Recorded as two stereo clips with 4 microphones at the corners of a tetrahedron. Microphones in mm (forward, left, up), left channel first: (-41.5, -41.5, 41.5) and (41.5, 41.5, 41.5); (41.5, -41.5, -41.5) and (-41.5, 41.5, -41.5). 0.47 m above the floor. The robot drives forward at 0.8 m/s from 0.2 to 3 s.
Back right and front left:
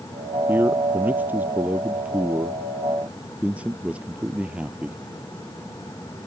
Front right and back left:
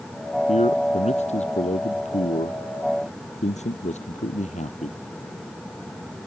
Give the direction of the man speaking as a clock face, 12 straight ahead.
1 o'clock.